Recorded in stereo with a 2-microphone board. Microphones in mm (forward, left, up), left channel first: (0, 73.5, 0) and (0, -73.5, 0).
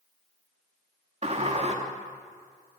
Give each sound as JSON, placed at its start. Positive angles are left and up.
{"t": 1.2, "sound": "a sliding door", "side_deg": -45, "distance_m": 3.0}